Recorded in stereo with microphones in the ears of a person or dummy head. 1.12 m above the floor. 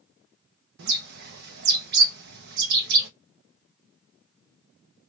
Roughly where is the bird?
Right.